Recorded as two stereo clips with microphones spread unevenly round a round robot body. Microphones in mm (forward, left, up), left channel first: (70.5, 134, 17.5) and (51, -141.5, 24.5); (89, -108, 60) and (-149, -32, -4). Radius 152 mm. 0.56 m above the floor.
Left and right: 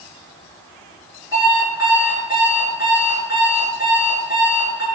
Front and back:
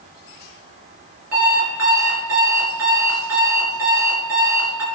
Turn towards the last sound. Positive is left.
turn(degrees=-175)